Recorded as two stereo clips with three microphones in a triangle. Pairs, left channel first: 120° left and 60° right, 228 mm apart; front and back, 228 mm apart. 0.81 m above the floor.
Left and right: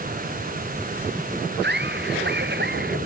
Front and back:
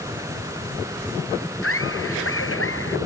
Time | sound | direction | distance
1.6 | laughter | 20° right | ?